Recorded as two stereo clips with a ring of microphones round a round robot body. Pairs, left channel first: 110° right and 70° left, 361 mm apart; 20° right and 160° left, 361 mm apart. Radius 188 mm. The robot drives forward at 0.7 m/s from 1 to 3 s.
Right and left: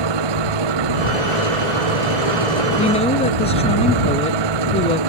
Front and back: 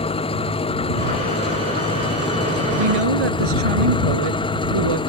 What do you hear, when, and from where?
0.0 s an engine running: 55° left
2.8 s a woman speaking: 175° left